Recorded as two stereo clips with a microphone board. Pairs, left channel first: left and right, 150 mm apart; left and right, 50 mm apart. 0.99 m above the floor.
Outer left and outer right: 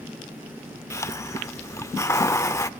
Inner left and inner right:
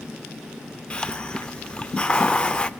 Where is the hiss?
20° left (ahead or behind), 0.6 m.